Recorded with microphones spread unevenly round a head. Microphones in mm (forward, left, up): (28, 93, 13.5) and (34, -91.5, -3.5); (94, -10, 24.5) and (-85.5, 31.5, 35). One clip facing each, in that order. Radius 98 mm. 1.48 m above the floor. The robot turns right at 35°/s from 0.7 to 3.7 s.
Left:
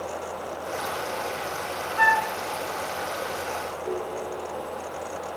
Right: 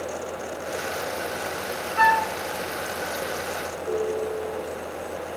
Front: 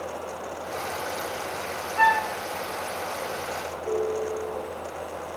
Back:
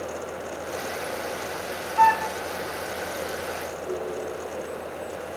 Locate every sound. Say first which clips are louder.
2.0 s a flute: right 3 dB, back 3 dB; 100° right, 1.0 m; by 2.3 s 90° right, 1.0 m
3.9 s a ringtone: right 7 dB, front 5 dB; 50° left, 4.5 m